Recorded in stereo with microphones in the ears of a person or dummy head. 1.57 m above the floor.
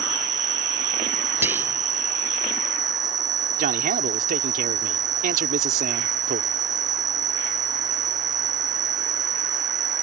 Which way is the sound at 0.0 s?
20° right (ahead or behind).